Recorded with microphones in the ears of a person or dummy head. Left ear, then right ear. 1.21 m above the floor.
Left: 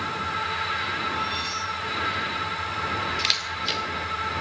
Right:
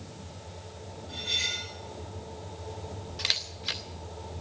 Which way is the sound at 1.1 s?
55° right (ahead or behind).